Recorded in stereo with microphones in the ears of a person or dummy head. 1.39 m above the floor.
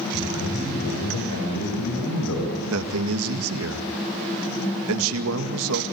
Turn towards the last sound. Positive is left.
turn(degrees=-75)  # may be behind; listen again after turning